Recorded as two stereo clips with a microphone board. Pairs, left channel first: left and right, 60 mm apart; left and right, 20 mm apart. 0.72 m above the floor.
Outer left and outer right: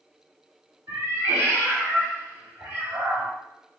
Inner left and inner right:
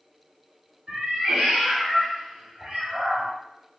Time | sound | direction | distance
0.9 | a cat meowing | 65° right (ahead or behind) | 1.8 m